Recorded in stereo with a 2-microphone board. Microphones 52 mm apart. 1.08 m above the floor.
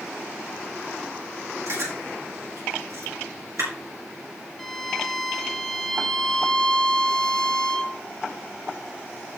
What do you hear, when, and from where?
1.7 s chewing: 70° right (ahead or behind), 5 m
4.6 s a violin: 10° left (ahead or behind), 1.1 m